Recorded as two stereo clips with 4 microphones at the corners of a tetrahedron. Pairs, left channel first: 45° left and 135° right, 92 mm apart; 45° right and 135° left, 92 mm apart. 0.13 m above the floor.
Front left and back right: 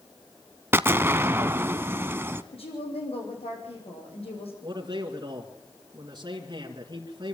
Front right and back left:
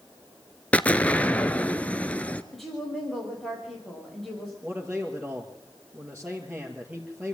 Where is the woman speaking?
45° left, 7 m.